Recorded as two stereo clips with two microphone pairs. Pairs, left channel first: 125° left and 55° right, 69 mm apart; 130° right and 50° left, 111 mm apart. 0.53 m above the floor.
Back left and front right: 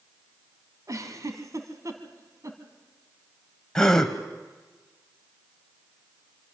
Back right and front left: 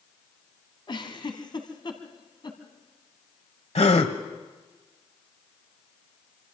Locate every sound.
0.9 s a giggle: 90° right, 2 m
3.8 s a gasp: 150° right, 1.3 m